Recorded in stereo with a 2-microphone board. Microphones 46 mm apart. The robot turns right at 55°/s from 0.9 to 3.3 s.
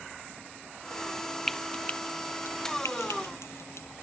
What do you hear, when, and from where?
1.5 s frying: 5° left (ahead or behind); by 3.9 s 75° left (ahead or behind)